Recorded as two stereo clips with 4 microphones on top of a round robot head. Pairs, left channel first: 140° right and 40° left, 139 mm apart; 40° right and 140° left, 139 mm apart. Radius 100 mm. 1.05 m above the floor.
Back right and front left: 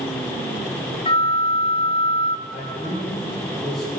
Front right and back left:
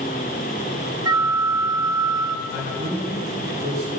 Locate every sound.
1.1 s a flute: 165° right, 0.9 m
2.5 s a man speaking: 130° left, 3.5 m